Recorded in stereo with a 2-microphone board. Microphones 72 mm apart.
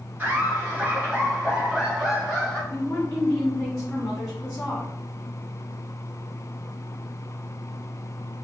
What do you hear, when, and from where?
0.2 s laughter: 25° right (ahead or behind), 1.6 m; by 2.6 s 10° left (ahead or behind), 1.9 m
2.7 s a woman speaking: 15° left (ahead or behind), 1.5 m